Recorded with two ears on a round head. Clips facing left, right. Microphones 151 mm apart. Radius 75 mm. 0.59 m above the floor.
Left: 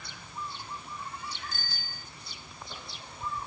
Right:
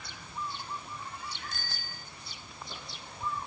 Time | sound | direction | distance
1.5 | a bicycle bell | 50° right (ahead or behind) | ?